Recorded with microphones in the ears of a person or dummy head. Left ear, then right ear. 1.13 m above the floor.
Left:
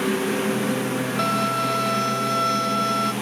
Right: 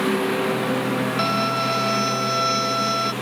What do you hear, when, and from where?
0.0 s a lawn mower: 15° right (ahead or behind); by 3.2 s 20° right (ahead or behind)
1.2 s a violin: 20° right (ahead or behind)